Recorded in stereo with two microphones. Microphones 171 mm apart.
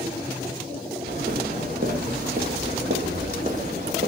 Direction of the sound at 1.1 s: 60° right (ahead or behind).